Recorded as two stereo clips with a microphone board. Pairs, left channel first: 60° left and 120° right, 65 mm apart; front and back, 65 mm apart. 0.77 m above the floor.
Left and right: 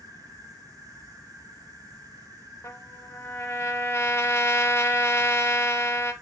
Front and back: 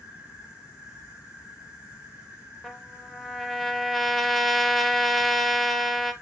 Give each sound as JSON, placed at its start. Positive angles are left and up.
{"t": 0.0, "sound": "an insect", "azimuth_deg": -105, "distance_m": 1.3}
{"t": 2.6, "sound": "a trumpet", "azimuth_deg": 90, "distance_m": 0.6}